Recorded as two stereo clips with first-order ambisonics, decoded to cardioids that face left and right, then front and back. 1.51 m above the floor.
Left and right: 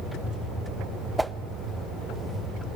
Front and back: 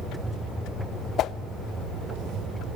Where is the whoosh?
10° right, 0.6 m.